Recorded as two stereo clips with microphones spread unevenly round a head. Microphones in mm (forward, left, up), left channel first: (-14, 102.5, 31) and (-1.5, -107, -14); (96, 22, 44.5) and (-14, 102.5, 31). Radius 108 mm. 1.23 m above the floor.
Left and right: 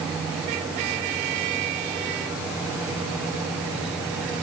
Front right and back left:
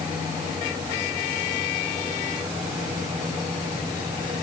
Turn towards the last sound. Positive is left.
No sound to turn to.